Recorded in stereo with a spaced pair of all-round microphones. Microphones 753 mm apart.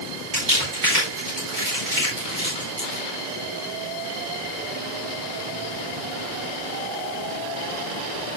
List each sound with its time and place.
0.3 s crumpling: 75° right (ahead or behind), 9.5 m